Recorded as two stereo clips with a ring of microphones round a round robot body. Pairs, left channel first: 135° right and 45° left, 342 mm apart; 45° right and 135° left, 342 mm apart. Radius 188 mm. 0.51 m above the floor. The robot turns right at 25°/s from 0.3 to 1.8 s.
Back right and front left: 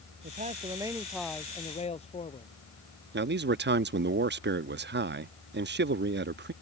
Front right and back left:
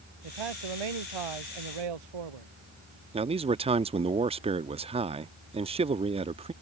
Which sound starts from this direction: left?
A man speaking, at 3.1 s.